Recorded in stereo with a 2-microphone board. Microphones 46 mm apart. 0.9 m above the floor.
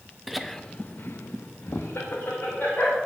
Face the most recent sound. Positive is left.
turn(degrees=50)  # may be behind; listen again after turning